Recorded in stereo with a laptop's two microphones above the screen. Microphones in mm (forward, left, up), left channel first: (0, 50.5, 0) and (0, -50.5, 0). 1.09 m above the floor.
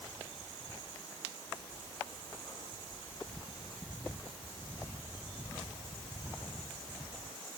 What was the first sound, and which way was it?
Only background noise.